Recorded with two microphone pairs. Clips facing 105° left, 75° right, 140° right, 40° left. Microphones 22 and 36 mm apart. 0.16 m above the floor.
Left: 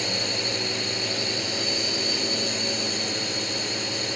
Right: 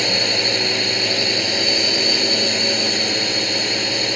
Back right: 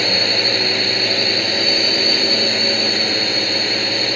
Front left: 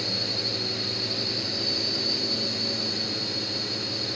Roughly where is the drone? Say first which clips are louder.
Right 8 dB, back right 12 dB; behind right.